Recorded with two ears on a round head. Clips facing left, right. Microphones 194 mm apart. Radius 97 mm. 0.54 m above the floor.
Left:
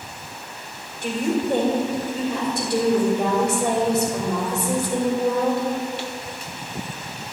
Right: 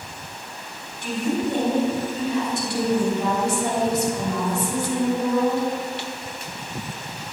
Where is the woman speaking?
35° left (ahead or behind), 2.5 m.